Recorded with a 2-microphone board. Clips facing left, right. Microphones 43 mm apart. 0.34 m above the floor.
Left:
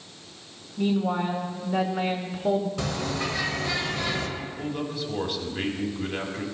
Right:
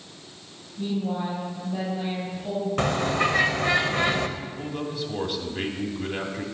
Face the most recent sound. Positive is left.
turn(degrees=0)  # may be behind; listen again after turning